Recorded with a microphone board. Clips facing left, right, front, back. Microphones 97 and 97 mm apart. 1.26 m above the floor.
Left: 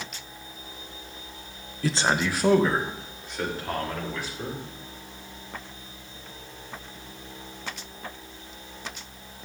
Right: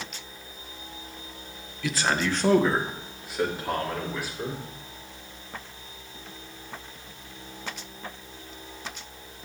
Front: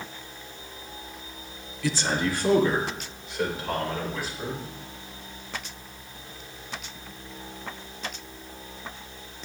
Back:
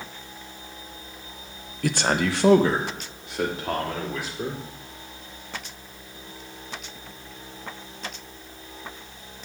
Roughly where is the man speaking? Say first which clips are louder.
Left 1 dB, back 3 dB; behind left.